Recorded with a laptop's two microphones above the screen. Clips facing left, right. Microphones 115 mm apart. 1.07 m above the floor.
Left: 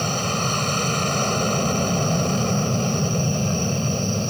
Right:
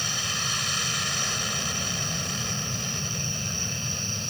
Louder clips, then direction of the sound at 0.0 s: Left 11 dB; 50° left (ahead or behind).